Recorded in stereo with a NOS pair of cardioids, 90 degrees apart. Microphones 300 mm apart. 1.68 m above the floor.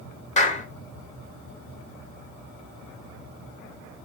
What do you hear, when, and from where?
0.4 s a clap: 25° left, 1.0 m